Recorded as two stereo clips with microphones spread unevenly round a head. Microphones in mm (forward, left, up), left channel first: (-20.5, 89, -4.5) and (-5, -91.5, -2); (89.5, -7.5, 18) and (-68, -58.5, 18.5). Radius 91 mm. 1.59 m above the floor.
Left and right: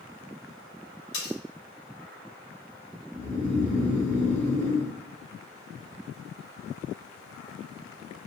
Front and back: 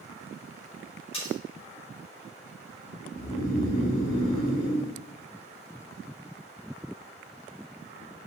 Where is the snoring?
25° left, 1.4 m.